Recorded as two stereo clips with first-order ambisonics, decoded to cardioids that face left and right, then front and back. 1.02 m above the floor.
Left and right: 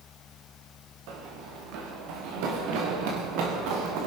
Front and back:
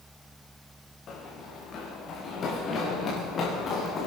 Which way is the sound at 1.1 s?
60° right.